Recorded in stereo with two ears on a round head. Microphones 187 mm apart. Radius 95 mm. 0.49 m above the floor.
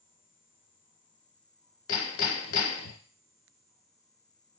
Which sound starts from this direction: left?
Hammering, at 1.9 s.